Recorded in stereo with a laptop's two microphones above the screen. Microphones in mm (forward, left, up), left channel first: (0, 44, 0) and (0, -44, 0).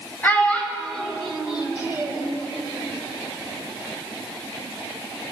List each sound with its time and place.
0.2 s a child speaking: 20° left (ahead or behind), 2.5 m; by 2.3 s 30° right (ahead or behind), 2 m